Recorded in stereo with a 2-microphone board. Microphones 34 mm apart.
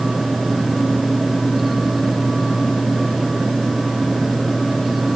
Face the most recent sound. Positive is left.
No sound to turn to.